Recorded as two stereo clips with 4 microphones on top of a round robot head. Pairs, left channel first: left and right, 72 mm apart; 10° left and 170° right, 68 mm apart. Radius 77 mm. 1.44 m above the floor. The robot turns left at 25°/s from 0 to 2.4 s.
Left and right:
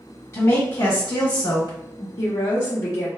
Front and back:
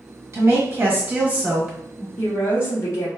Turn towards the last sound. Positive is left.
turn(degrees=55)